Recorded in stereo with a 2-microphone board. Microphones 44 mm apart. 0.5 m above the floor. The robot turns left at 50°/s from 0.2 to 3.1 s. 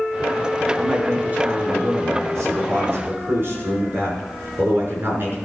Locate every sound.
0.8 s a man speaking: 10° right, 5.5 m; by 5.4 s 130° right, 5.5 m